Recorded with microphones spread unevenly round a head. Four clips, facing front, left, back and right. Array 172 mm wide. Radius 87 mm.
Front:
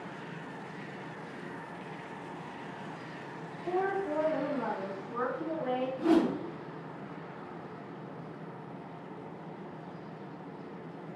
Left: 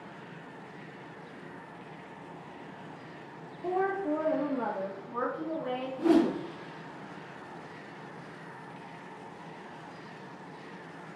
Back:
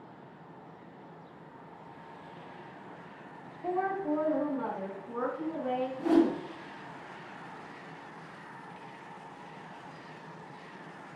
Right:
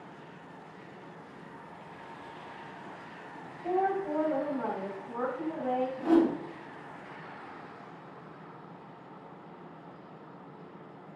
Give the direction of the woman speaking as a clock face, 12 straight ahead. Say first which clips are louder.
Right 1 dB, even; 8 o'clock.